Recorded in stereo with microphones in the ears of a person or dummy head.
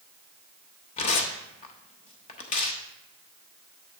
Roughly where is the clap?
I don't hear a clap.